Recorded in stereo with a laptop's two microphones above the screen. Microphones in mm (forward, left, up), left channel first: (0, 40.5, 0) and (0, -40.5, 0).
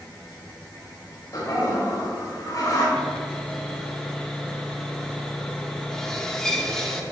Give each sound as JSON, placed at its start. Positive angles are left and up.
{"t": 1.3, "sound": "a toilet flushing", "side_deg": 45, "distance_m": 1.9}
{"t": 3.0, "sound": "sawing", "side_deg": 5, "distance_m": 1.1}